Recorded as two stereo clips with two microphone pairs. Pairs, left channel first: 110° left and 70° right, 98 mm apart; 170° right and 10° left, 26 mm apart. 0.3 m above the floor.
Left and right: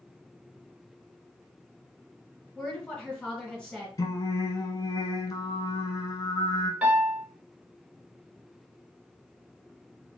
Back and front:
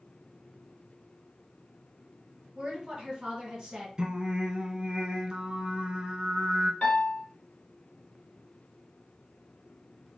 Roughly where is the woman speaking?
Ahead left.